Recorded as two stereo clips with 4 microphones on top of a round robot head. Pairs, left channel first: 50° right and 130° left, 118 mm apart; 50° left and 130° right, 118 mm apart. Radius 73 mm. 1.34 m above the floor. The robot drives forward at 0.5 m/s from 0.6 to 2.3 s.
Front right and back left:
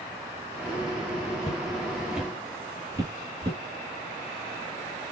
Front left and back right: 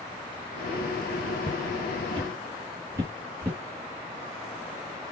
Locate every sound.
1.4 s footsteps: 95° right, 1.5 m; by 3.6 s 155° left, 1.6 m